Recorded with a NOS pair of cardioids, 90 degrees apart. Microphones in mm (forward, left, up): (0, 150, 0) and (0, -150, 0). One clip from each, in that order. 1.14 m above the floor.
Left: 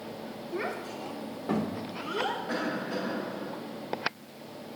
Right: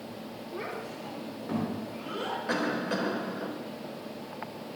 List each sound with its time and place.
0.5 s a child speaking: 30° left, 2.5 m; by 2.4 s 35° left, 3.5 m
2.5 s a cough: 55° right, 3.5 m